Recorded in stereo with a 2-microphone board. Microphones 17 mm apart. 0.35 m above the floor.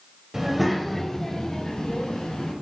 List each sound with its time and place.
0.3 s a child speaking: 20° right (ahead or behind), 1.3 m; by 2.5 s 50° left (ahead or behind), 2.5 m